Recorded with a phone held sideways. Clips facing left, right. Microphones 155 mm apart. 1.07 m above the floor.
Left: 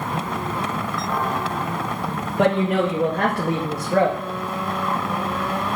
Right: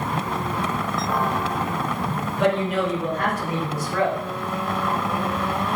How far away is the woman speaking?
About 1.6 m.